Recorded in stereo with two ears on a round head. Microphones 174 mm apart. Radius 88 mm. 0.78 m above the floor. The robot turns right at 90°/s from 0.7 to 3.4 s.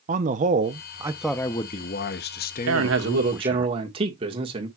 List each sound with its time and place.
0.1 s a man speaking: 50° right, 0.7 m; by 3.7 s 170° right, 0.7 m
2.7 s a man speaking: 95° right, 1.5 m; by 4.7 s 30° right, 1.5 m